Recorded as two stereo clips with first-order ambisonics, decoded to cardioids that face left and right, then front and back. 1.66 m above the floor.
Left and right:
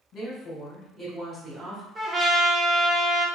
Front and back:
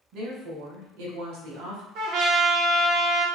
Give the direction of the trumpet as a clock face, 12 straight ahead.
6 o'clock.